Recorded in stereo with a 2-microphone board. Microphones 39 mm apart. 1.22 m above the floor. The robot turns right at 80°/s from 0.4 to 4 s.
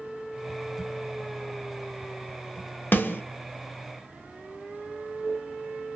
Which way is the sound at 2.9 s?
60° left (ahead or behind).